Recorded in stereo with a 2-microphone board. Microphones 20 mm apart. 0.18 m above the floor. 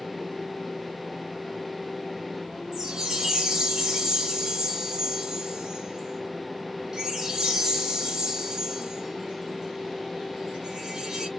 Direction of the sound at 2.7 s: 30° right (ahead or behind).